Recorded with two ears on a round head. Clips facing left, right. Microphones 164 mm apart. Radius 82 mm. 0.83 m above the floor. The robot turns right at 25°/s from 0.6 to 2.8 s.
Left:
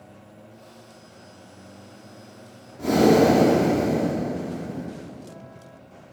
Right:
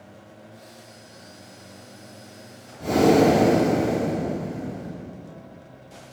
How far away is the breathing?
About 1.8 m.